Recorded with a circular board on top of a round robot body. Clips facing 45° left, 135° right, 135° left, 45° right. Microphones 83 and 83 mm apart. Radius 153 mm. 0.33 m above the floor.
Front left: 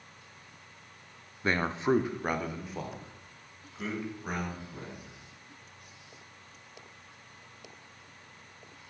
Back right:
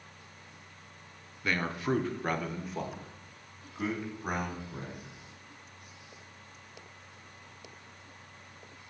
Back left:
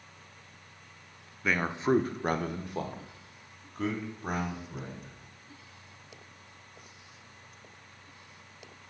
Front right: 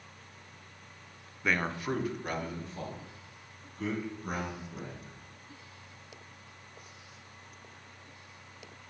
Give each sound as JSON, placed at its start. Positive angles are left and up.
{"t": 1.4, "sound": "a man speaking", "azimuth_deg": 45, "distance_m": 0.9}